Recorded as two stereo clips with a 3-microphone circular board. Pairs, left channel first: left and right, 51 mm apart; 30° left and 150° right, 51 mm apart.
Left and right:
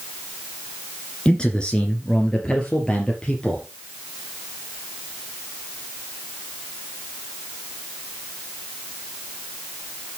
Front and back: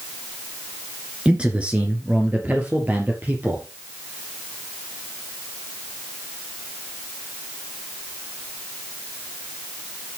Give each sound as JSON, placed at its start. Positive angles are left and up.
{"t": 1.2, "sound": "a man speaking", "azimuth_deg": 150, "distance_m": 2.0}